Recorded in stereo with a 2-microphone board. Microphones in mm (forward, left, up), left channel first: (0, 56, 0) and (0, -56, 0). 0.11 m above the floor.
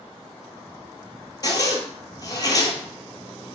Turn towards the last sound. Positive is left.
turn(degrees=35)  # may be behind; listen again after turning